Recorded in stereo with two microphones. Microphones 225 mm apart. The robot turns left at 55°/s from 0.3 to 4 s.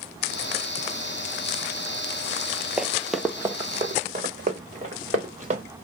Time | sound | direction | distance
2.8 | running footsteps | 5° right (ahead or behind) | 0.6 m